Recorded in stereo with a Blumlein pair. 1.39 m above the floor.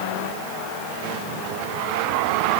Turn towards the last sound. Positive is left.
No sound to turn to.